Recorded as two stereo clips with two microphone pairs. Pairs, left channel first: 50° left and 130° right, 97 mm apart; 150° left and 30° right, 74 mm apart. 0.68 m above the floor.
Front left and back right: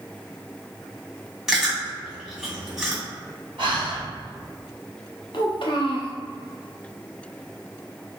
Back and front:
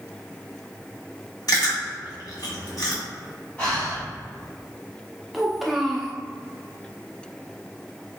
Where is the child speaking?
55° left, 0.9 m.